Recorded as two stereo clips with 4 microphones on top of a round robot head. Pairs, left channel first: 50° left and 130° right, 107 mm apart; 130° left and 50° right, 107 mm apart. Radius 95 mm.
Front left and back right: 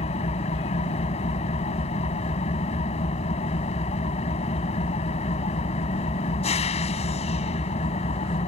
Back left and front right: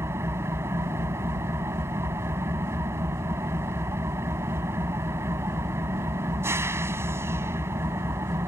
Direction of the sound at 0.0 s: 20° left.